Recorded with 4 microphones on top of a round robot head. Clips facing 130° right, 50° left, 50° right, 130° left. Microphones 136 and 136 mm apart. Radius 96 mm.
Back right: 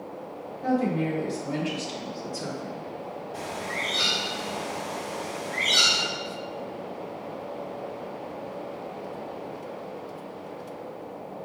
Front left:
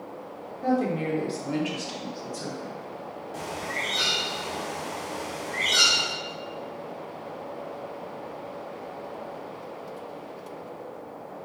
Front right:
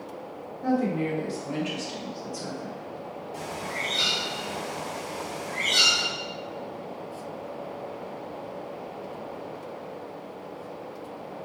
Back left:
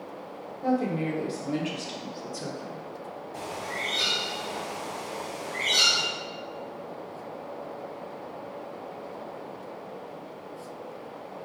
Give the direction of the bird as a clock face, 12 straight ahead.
11 o'clock.